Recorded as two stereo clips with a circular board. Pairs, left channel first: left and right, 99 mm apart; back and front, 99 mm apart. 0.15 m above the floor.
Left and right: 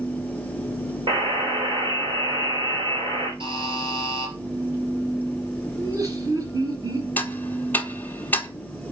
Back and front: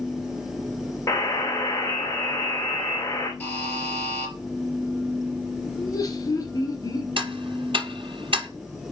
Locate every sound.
1.1 s a buzzer: 120° right, 5 m
3.4 s a buzzer: 110° right, 3.5 m
5.8 s laughter: 135° right, 3 m
7.2 s ticking: 20° left, 0.9 m